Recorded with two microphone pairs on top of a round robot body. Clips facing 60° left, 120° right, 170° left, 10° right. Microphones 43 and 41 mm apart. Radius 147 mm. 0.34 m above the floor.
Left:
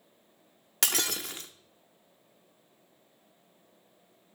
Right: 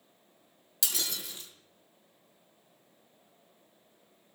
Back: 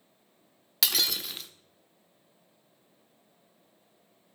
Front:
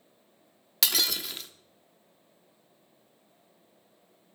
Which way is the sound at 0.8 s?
85° left.